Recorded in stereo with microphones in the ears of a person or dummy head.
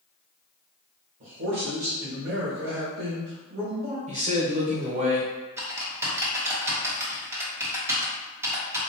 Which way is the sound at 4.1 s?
35° right (ahead or behind).